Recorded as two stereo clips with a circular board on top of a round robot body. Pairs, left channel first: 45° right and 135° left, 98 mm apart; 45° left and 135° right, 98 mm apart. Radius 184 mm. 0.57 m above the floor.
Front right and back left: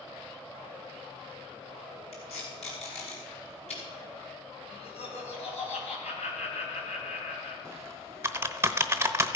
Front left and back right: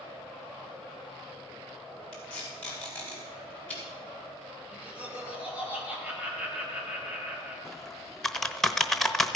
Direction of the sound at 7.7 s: 125° left.